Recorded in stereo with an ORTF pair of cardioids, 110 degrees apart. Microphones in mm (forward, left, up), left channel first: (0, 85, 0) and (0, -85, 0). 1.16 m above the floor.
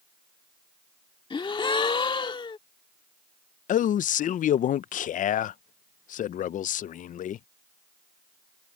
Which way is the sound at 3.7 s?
50° left.